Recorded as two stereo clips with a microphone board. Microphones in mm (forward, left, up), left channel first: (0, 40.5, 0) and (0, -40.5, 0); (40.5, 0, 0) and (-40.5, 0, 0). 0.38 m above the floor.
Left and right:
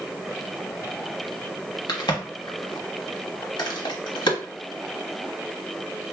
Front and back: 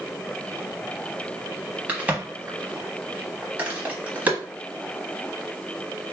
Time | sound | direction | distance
1.9 | a crack | 110° left | 1.0 m